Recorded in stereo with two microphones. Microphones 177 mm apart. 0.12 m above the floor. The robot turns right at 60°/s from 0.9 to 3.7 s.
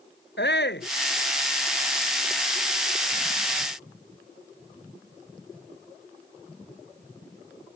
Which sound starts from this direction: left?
A shout, at 0.4 s.